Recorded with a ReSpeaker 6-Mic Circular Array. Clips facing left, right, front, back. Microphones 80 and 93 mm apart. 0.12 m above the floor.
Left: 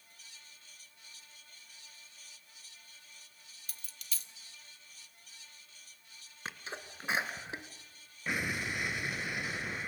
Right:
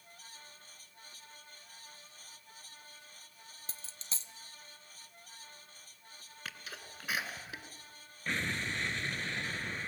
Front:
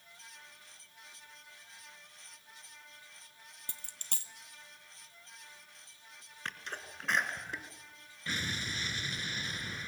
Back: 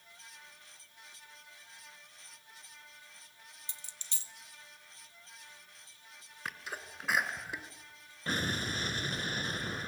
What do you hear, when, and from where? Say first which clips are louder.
3.7 s a dropped coin: even, front 3 dB; 30° right, 1.0 m
6.5 s a sneeze: left 4 dB, back 1 dB; 105° left, 1.5 m
8.3 s an explosion: left 1 dB, back 4 dB; 165° left, 0.7 m